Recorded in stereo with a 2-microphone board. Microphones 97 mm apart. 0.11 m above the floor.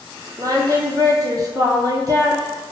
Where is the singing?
40° right (ahead or behind), 0.5 m.